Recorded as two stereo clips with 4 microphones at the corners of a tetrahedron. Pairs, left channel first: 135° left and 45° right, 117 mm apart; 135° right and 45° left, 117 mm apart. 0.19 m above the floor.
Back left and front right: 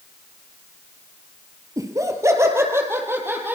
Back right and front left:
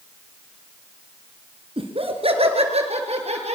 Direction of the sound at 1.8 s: 15° left.